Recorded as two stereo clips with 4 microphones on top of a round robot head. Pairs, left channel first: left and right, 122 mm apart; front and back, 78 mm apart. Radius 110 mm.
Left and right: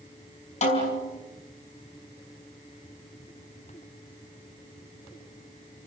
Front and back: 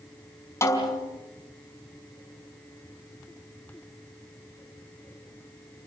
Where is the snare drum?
50° left, 5 m.